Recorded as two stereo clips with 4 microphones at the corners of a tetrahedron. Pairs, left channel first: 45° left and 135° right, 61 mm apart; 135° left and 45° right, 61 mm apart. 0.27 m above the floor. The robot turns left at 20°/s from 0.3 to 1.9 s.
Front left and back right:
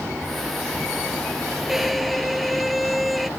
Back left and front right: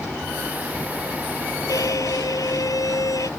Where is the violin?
140° left; by 3.3 s 135° left.